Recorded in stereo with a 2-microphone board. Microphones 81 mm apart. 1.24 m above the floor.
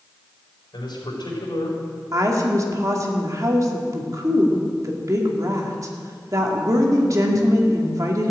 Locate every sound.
0.7 s a man speaking: 75° left (ahead or behind), 4.5 m
2.1 s a woman speaking: 50° right (ahead or behind), 2 m